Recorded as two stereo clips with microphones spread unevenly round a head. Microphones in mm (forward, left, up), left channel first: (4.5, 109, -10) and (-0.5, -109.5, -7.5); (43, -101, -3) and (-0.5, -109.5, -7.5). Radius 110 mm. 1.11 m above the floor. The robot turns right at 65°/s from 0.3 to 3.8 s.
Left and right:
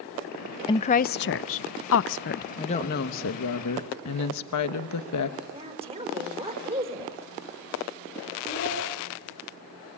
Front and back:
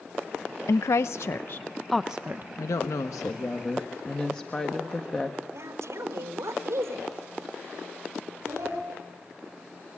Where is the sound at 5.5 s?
155° right, 4.5 m.